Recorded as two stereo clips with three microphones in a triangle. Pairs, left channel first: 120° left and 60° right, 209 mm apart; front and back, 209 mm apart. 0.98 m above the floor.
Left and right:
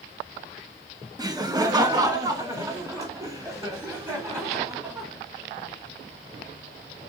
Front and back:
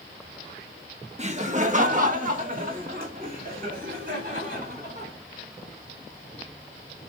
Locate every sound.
1.2 s laughter: 130° right, 0.8 m; by 5.1 s 135° right, 4 m